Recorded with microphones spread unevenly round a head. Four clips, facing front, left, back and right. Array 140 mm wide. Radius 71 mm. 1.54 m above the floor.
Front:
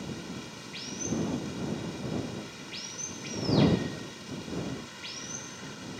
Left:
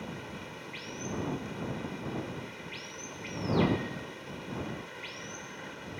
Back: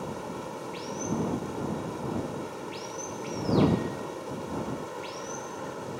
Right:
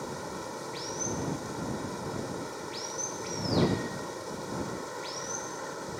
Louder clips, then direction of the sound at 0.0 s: Right 5 dB, back 4 dB; 145° right.